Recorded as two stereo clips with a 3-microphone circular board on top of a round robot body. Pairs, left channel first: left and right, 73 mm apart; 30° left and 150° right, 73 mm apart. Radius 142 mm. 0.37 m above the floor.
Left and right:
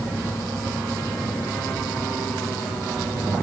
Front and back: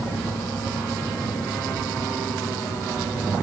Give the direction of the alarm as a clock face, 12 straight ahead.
I don't hear an alarm.